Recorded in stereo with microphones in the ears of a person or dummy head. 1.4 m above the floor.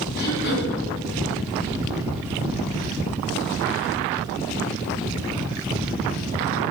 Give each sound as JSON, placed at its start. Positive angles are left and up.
{"t": 0.2, "sound": "throat clearing", "side_deg": 55, "distance_m": 6.5}